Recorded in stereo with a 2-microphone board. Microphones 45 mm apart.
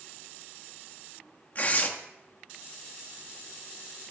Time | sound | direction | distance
1.6 | tearing paper | 40° left (ahead or behind) | 1.6 m